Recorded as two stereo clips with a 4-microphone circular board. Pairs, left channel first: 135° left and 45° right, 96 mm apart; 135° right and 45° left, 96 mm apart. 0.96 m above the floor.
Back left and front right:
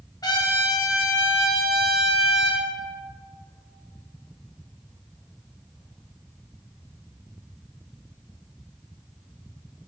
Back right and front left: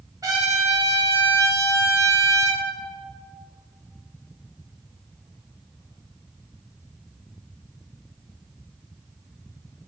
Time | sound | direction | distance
0.2 | a trumpet | 90° left | 1.4 m